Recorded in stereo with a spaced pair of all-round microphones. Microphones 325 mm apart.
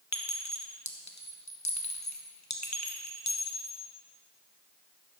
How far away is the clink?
About 1.2 m.